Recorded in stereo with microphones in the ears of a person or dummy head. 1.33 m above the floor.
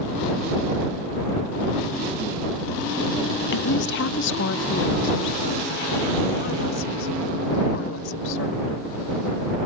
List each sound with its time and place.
3.5 s a woman speaking: 60° left (ahead or behind); by 8.8 s 80° left